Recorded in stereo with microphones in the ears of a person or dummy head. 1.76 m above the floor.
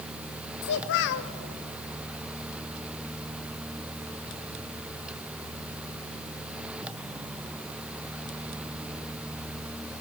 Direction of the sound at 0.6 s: 60° left (ahead or behind).